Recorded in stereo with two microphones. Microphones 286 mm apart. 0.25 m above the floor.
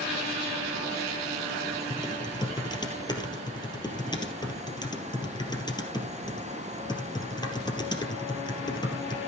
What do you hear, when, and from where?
1.9 s typing on a keyboard: 15° left (ahead or behind), 2.5 m